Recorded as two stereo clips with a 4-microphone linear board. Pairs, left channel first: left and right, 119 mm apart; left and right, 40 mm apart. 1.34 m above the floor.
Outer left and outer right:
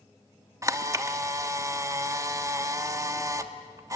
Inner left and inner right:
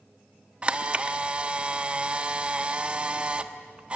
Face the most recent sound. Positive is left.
turn(degrees=-25)  # may be behind; listen again after turning